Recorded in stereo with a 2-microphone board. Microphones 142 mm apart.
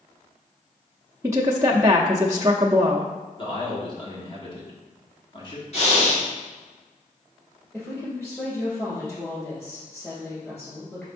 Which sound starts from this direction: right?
A woman speaking, at 1.2 s.